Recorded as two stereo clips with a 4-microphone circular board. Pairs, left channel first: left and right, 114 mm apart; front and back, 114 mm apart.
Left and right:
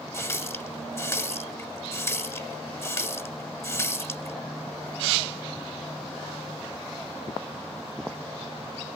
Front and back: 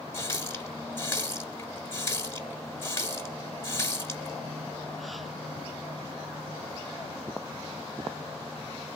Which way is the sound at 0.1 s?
50° left.